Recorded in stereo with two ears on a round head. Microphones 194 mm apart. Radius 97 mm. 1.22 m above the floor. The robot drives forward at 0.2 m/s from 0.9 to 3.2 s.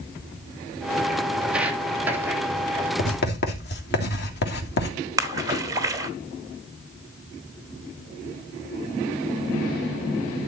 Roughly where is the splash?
Centre.